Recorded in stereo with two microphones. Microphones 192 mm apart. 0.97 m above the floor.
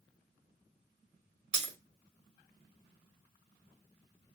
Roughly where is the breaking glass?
Right.